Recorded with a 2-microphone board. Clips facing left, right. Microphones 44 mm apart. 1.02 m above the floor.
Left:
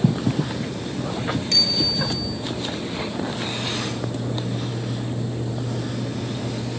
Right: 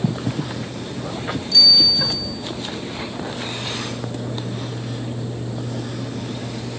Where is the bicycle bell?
70° left (ahead or behind), 7 m.